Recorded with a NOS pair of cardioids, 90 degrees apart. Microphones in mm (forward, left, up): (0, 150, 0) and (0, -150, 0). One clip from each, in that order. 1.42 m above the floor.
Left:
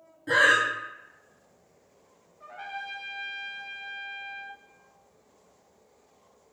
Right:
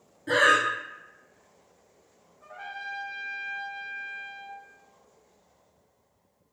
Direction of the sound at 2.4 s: 35° left.